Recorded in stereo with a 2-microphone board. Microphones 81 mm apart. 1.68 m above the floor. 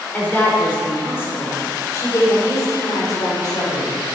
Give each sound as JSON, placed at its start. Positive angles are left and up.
{"t": 0.1, "sound": "a woman speaking", "side_deg": 20, "distance_m": 5.0}